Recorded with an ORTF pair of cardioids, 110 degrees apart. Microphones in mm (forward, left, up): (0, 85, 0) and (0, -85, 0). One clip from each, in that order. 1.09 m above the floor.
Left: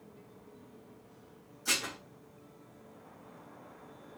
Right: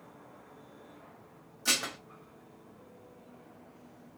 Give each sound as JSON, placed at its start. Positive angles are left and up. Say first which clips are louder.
{"t": 1.6, "sound": "dishes clattering", "louder": "right 2 dB", "azimuth_deg": -55, "distance_m": 0.9}